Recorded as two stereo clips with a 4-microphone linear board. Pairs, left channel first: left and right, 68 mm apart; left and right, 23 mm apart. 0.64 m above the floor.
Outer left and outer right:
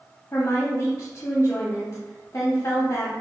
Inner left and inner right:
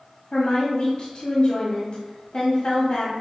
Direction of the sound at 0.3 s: 50° left (ahead or behind).